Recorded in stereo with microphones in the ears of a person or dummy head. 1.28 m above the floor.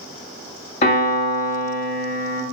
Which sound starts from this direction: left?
A piano, at 0.8 s.